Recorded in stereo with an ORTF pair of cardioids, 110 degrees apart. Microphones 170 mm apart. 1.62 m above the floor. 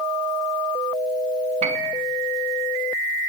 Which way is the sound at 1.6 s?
40° right.